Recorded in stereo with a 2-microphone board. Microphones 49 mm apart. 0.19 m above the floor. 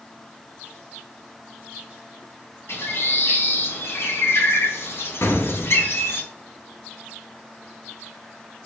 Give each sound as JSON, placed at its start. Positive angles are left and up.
{"t": 2.7, "sound": "a bird", "side_deg": 65, "distance_m": 1.9}
{"t": 5.2, "sound": "an explosion", "side_deg": 70, "distance_m": 1.4}